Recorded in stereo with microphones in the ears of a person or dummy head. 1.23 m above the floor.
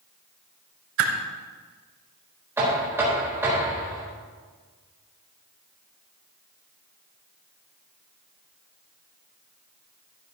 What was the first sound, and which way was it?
A whoosh, 65° right (ahead or behind).